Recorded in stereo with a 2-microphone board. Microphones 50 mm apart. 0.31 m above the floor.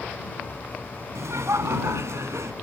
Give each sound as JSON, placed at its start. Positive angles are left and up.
{"t": 1.1, "sound": "laughter", "side_deg": -65}